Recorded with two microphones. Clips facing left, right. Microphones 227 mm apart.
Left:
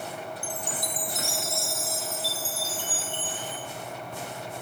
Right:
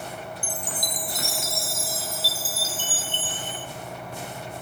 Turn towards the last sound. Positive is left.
turn(degrees=-90)